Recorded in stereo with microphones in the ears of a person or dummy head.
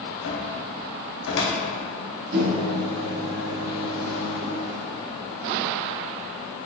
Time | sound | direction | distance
0.2 | a cupboard door | 70° left (ahead or behind) | 0.9 m
2.3 | a microwave | 60° right (ahead or behind) | 0.7 m